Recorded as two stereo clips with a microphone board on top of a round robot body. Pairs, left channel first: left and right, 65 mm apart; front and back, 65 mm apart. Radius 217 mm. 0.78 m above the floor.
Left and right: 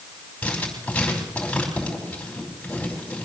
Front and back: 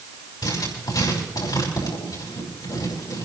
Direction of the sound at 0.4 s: 20° left.